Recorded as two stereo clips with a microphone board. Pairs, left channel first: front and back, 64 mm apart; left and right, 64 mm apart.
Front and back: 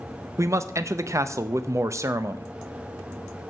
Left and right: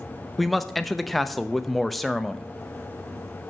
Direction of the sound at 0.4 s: Straight behind.